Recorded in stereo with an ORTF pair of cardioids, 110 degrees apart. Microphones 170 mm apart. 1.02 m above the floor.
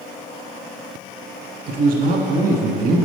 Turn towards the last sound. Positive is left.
turn(degrees=-60)